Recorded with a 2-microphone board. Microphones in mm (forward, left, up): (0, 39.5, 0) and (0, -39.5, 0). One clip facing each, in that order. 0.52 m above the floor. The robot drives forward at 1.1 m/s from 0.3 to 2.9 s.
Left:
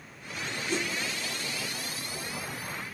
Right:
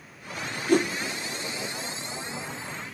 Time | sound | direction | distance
0.7 | a whoosh | 55° right (ahead or behind) | 0.6 m